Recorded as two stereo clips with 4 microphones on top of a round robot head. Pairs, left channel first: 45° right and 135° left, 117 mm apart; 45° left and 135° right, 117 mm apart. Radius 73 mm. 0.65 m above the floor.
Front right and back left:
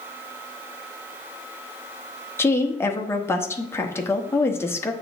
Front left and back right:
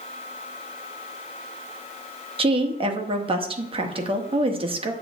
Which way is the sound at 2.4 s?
110° right.